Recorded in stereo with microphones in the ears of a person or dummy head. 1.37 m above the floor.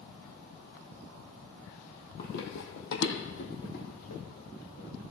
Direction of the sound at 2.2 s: 45° left (ahead or behind).